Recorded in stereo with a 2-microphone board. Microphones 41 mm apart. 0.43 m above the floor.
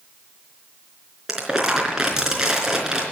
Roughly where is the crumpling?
Centre.